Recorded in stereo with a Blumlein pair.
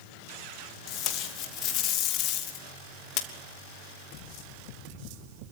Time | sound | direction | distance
0.9 | tape being pulled | 35° left | 3 m